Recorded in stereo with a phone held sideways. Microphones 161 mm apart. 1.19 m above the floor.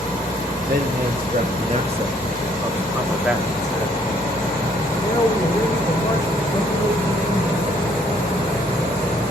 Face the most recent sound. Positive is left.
turn(degrees=30)  # may be behind; listen again after turning